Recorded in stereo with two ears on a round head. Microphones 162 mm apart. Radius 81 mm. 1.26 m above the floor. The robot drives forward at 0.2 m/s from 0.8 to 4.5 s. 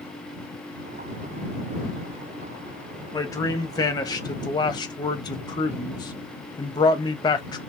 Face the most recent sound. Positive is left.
turn(degrees=25)  # may be behind; listen again after turning